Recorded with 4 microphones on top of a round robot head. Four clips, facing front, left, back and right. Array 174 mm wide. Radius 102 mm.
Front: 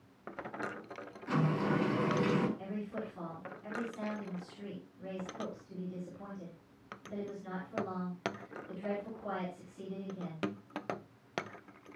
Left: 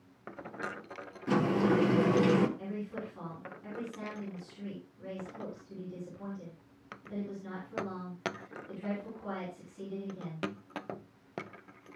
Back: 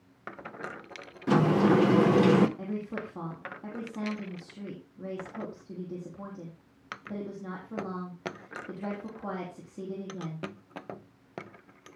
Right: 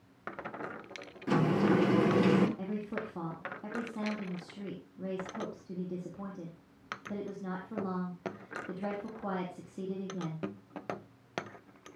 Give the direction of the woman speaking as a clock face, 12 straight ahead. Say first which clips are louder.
Right 2 dB, back 5 dB; 5 o'clock.